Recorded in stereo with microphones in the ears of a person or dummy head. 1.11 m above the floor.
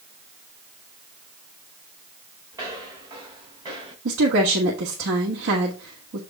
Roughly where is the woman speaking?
Right.